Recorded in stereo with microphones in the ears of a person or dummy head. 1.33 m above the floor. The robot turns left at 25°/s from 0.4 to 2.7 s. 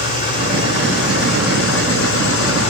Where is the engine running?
140° left, 7.5 m; by 2.7 s 80° left, 7.5 m.